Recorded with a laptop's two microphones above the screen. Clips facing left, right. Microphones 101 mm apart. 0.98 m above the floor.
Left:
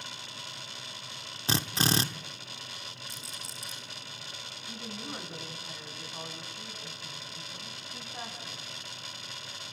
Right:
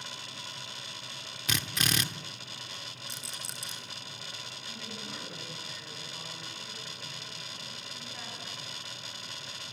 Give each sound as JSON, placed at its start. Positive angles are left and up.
{"t": 1.5, "sound": "a drill", "side_deg": 30, "distance_m": 0.8}
{"t": 3.1, "sound": "a rattle", "side_deg": -75, "distance_m": 3.0}
{"t": 4.7, "sound": "a woman speaking", "side_deg": 35, "distance_m": 7.0}